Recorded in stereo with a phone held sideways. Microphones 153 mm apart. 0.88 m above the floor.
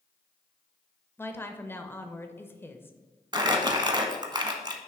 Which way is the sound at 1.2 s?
15° left (ahead or behind).